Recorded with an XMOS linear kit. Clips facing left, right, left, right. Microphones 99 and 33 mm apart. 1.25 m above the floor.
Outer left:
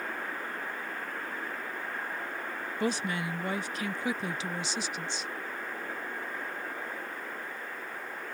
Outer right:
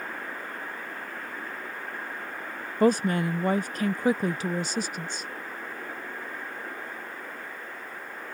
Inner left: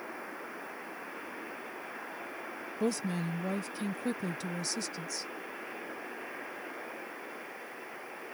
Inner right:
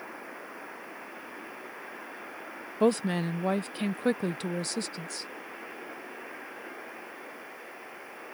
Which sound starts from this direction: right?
A woman speaking, at 2.8 s.